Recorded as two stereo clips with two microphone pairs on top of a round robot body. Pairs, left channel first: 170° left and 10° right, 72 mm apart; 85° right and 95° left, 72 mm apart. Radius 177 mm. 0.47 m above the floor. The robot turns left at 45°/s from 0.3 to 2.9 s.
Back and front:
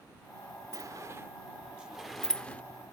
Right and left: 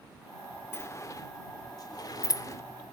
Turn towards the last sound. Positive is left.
turn(degrees=-135)